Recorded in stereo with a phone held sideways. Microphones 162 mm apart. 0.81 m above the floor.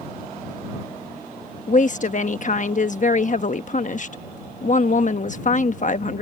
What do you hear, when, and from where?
1.7 s a woman speaking: 50° left (ahead or behind)